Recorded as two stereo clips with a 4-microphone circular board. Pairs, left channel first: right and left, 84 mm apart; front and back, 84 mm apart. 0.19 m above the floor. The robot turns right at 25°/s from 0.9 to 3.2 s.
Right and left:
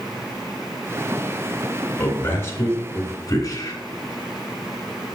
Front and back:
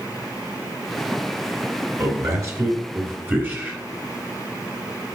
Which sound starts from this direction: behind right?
A man speaking, at 2.0 s.